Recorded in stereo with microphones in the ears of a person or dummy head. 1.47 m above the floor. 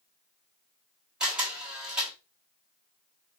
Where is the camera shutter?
10° right (ahead or behind), 1.5 m.